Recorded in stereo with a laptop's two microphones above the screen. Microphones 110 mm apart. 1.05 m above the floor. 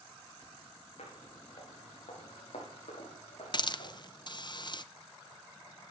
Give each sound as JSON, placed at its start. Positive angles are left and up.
{"t": 1.0, "sound": "footsteps", "side_deg": 80, "distance_m": 5.5}
{"t": 3.5, "sound": "a hiss", "side_deg": 45, "distance_m": 0.6}